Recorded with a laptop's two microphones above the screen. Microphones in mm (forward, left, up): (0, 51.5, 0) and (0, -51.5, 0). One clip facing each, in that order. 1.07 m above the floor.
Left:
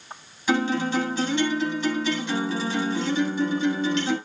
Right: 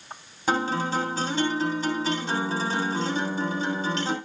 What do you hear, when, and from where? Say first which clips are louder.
0.5 s a guitar: left 2 dB; 40° right (ahead or behind), 3 m